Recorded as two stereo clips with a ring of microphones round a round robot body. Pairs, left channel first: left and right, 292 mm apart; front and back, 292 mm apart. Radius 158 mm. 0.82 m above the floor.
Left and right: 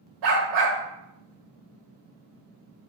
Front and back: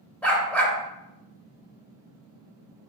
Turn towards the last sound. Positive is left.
turn(degrees=-85)